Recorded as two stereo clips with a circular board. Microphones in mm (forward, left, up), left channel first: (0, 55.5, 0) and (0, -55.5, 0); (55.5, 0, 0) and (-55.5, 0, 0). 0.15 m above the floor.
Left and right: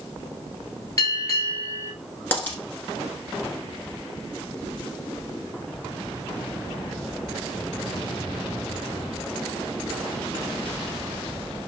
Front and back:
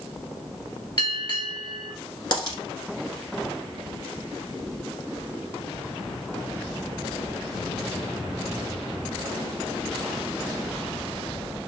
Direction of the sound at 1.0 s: 40° left.